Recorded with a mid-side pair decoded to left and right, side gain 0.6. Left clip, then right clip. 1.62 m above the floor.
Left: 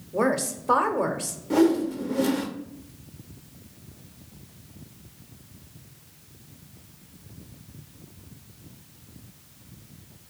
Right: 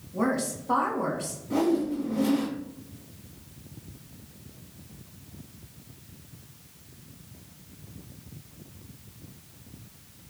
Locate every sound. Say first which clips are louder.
0.1 s a woman speaking: left 4 dB; 70° left, 0.8 m
1.5 s a whoosh: left 4 dB; 60° left, 0.7 m